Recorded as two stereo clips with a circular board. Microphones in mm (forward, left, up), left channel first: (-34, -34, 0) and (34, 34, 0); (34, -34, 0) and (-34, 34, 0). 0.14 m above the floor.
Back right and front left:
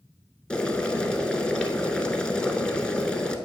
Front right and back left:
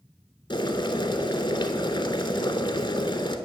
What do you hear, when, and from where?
0.5 s boiling: 55° right, 0.5 m